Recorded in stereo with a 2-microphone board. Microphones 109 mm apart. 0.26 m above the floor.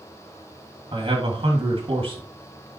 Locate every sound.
0.9 s a man speaking: 55° right (ahead or behind), 2.5 m